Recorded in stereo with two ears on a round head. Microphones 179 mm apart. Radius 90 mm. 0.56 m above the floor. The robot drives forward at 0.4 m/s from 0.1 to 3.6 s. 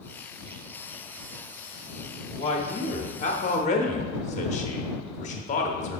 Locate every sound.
2.4 s a man speaking: 35° left (ahead or behind), 1.0 m